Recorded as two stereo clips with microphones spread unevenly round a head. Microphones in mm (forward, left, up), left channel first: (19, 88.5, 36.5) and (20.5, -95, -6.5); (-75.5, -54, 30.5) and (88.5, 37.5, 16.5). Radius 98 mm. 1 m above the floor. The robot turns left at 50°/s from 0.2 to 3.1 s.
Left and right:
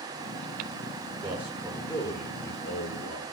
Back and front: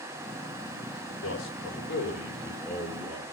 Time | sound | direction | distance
1.2 | a man speaking | 160° right | 4.5 m